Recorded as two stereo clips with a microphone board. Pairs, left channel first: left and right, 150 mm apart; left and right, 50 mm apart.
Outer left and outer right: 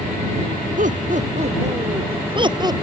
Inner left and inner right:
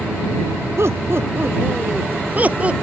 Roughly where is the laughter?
Right.